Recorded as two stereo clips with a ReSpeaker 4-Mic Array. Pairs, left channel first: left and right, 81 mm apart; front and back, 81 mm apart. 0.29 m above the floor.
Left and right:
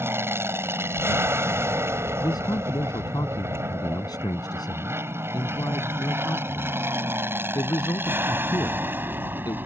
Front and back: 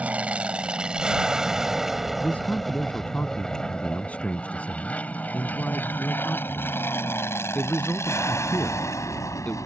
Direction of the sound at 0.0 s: 120° right.